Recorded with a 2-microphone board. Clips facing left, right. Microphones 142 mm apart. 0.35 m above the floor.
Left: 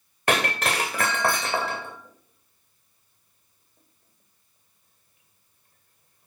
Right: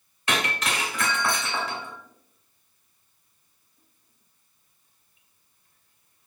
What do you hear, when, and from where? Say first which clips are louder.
0.3 s breaking glass: left 4 dB; 55° left (ahead or behind), 2.5 m